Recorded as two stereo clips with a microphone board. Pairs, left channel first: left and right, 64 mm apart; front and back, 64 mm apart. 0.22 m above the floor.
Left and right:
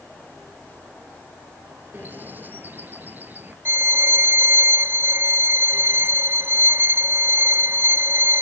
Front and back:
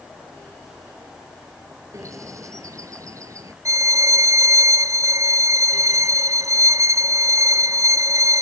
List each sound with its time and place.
1.9 s a bird: 150° right
3.6 s a violin: 145° right